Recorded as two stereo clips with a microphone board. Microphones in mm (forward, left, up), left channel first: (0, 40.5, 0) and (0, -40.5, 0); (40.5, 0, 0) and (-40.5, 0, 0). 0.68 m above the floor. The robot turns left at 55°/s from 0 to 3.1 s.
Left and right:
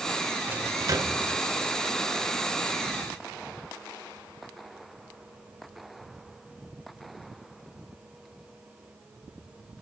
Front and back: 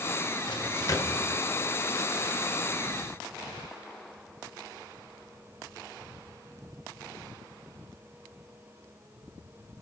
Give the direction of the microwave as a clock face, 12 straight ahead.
1 o'clock.